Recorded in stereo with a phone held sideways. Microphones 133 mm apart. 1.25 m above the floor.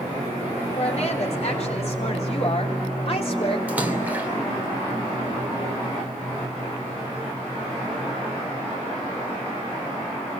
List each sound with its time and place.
0.8 s a woman speaking: 55° left (ahead or behind), 5.5 m; by 3.6 s 45° left (ahead or behind), 3.5 m
3.7 s a splash: 10° right (ahead or behind), 2.5 m